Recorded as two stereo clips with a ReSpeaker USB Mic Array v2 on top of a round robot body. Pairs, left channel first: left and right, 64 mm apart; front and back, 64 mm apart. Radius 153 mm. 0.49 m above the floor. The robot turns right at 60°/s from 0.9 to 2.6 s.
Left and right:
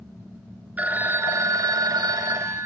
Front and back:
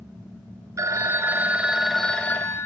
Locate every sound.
0.8 s a phone ringing: 155° right, 0.9 m; by 2.7 s 50° right, 0.9 m